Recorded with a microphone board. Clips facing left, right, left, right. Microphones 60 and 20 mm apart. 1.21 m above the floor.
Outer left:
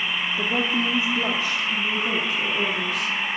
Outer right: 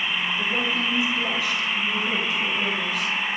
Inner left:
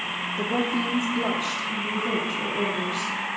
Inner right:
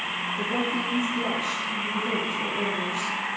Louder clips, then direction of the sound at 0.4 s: Outer left 4 dB, inner left 3 dB; 35° left (ahead or behind).